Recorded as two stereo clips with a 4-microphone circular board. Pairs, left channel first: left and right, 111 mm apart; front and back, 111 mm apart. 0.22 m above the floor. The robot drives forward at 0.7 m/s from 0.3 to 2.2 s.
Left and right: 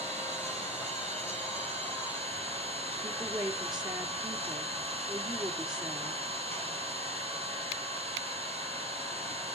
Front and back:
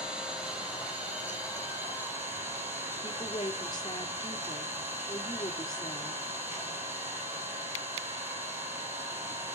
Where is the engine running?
100° right, 7 m; by 9.6 s 110° right, 7.5 m.